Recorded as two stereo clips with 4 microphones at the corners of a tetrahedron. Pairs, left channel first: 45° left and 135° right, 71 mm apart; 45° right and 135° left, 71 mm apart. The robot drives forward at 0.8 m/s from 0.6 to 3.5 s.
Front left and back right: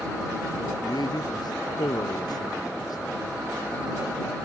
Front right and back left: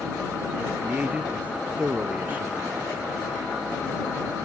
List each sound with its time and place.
0.8 s a man speaking: 60° left; by 3.2 s 70° left